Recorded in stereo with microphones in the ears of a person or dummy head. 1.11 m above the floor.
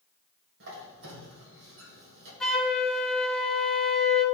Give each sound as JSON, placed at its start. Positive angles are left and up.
{"t": 0.6, "sound": "a squeak", "side_deg": -70, "distance_m": 1.9}
{"t": 2.4, "sound": "a flute", "side_deg": -5, "distance_m": 0.8}